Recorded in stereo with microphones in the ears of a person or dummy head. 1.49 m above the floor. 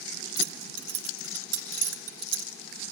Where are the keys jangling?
85° right, 4 m.